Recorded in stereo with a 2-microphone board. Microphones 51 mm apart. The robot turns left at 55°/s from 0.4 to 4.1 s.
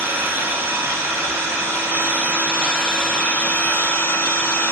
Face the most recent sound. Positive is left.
turn(degrees=115)